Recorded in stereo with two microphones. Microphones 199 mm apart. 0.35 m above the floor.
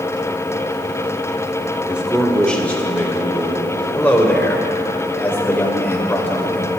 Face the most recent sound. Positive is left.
turn(degrees=10)  # may be behind; listen again after turning